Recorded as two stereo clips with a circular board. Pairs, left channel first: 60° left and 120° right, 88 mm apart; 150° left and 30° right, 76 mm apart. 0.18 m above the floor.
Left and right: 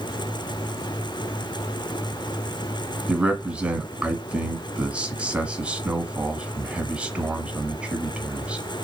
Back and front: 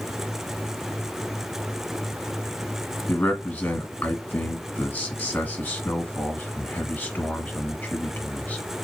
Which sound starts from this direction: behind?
A man speaking, at 3.1 s.